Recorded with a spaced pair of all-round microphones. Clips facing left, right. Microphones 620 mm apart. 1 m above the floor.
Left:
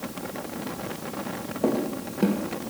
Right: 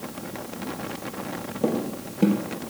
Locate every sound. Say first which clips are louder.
1.6 s footsteps: left 1 dB; 45° right (ahead or behind), 2.0 m